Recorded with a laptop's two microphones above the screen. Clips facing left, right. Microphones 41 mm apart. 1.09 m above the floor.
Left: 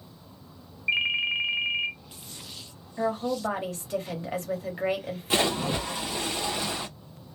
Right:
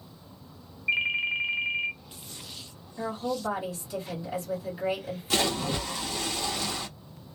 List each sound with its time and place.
0.9 s a ringtone: 15° left (ahead or behind), 0.7 m
3.0 s a woman speaking: 50° left (ahead or behind), 1.3 m
5.3 s a splash: 20° left (ahead or behind), 0.7 m